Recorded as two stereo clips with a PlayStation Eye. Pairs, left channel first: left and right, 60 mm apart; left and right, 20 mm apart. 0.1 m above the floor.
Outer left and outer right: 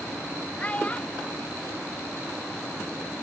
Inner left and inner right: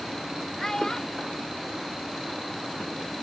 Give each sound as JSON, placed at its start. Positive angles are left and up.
{"t": 0.6, "sound": "a child speaking", "side_deg": 25}